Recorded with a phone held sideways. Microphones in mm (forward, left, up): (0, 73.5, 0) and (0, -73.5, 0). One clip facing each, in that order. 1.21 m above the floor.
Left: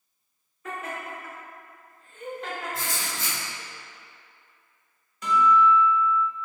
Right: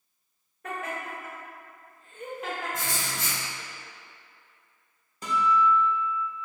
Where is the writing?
45° right (ahead or behind), 1.4 m.